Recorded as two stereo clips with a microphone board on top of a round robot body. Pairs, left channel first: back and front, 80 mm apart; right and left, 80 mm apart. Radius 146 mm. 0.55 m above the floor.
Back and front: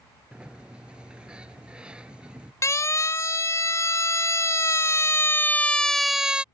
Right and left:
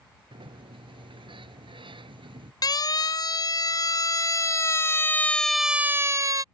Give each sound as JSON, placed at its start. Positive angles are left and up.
{"t": 0.3, "sound": "a sliding door", "azimuth_deg": 80}
{"t": 2.6, "sound": "a siren", "azimuth_deg": -125}